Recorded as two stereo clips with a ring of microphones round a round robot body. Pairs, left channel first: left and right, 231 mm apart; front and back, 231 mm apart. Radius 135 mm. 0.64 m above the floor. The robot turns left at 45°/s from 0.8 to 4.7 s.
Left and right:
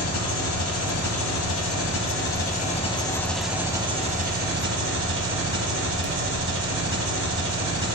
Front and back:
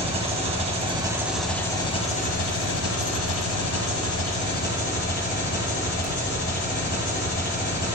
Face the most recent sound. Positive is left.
turn(degrees=-60)